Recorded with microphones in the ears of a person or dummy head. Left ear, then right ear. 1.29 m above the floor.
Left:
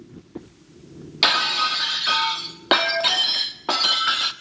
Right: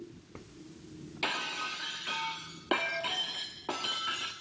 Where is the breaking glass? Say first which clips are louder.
Left 15 dB; 45° left (ahead or behind), 1.1 m.